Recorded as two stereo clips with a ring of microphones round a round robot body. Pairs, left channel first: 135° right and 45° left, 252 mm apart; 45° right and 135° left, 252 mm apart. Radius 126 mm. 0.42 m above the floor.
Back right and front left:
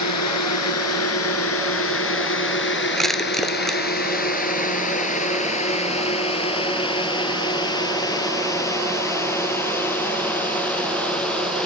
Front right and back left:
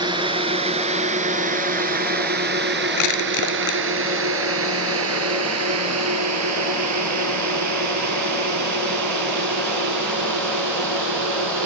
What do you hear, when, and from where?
0.0 s a drone: 155° right; by 11.7 s 140° left
3.0 s crushing: 45° right